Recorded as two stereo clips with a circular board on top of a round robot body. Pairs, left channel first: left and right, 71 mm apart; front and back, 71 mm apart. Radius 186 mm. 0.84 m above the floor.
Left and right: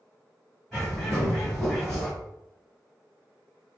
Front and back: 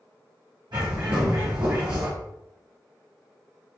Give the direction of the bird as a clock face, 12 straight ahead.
6 o'clock.